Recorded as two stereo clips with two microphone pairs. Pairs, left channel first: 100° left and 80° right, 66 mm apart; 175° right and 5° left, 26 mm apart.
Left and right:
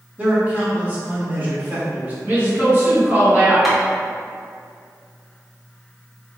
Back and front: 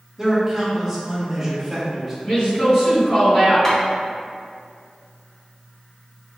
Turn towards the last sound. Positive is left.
turn(degrees=-165)